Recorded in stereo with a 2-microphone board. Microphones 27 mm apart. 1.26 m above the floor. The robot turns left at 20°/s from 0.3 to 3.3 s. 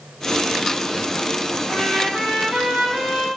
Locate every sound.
1.7 s a trumpet: 110° right, 1.7 m; by 3.3 s 145° right, 1.7 m